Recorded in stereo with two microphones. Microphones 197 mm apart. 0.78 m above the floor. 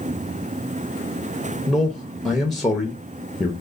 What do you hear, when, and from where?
1.7 s a man speaking: centre (ahead or behind), 0.8 m